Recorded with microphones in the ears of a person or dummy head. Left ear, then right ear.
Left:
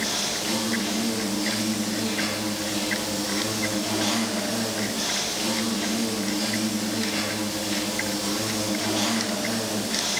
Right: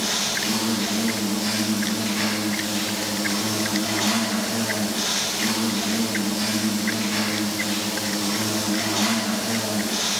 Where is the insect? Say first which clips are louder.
Right 3 dB; 45° right (ahead or behind), 2.5 m.